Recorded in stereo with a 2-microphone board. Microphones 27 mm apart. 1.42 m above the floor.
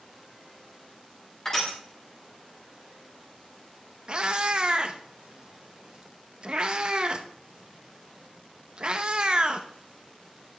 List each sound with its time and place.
1.4 s crushing: 20° left (ahead or behind), 3.5 m
4.1 s a cat meowing: 40° right (ahead or behind), 0.7 m